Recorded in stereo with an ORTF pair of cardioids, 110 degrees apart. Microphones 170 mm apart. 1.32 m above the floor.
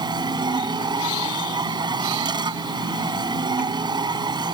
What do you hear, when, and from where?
0.0 s a machine running: 25° right